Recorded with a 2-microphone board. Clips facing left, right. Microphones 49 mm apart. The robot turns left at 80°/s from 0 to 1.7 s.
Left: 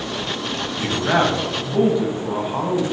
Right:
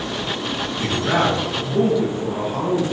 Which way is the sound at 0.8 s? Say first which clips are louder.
Left 1 dB; 20° left (ahead or behind).